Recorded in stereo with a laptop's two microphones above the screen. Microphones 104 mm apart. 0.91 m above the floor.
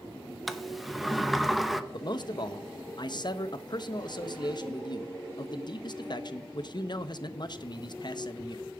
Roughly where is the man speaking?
Left.